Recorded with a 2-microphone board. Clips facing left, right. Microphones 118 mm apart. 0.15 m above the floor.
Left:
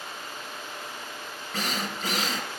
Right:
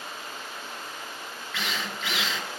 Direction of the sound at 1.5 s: 40° left (ahead or behind).